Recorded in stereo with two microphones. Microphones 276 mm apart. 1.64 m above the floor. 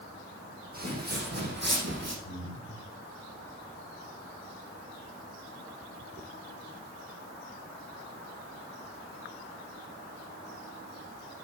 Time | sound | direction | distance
0.7 | footsteps | 35° right (ahead or behind) | 4 m
2.2 | breathing | 55° left (ahead or behind) | 2.5 m